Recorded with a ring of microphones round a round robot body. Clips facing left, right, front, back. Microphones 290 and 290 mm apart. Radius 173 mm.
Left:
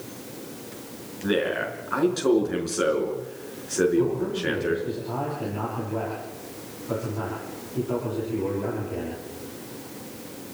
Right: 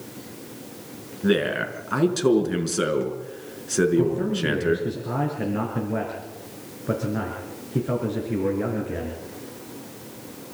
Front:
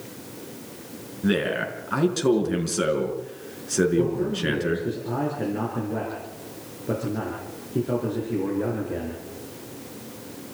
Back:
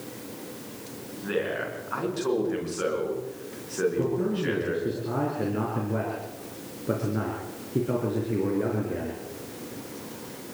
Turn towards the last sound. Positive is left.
turn(degrees=-95)